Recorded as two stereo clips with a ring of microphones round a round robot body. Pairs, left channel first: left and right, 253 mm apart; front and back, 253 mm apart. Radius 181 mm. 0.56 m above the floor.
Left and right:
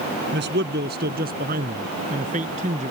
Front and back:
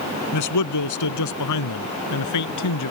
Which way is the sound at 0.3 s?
30° right.